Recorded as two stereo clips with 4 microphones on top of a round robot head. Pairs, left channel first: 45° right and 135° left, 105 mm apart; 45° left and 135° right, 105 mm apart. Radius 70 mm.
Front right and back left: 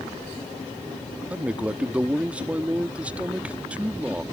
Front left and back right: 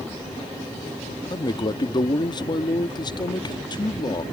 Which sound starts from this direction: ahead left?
A man speaking, at 1.3 s.